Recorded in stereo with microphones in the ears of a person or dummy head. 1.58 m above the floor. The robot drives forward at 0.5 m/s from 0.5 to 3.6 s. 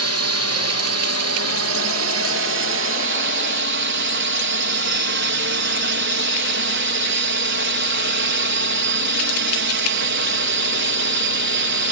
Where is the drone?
70° right (ahead or behind); by 11.9 s 55° right (ahead or behind).